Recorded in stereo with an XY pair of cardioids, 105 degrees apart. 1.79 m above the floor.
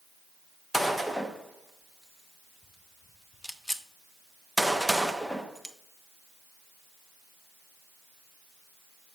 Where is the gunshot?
5° left, 0.7 m.